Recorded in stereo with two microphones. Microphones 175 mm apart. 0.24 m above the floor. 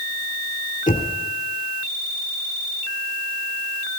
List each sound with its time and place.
0.9 s knocking: 50° left (ahead or behind), 3 m